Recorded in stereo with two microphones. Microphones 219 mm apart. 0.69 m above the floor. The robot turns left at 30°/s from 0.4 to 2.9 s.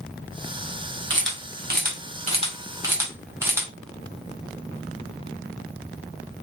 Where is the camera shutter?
60° right (ahead or behind), 1.7 m; by 3.7 s 10° right (ahead or behind), 1.7 m.